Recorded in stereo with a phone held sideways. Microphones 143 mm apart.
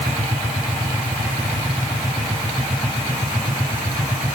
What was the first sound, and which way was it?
Only background noise.